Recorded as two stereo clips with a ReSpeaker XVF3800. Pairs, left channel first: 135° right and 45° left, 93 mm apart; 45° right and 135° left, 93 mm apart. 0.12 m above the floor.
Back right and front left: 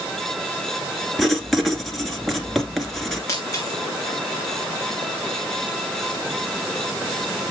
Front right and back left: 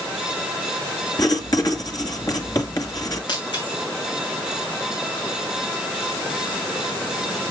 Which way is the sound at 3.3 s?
80° right.